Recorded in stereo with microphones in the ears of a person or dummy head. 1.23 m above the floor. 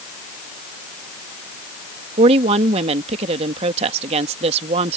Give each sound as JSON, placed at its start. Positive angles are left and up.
{"t": 2.2, "sound": "a woman speaking", "side_deg": -40}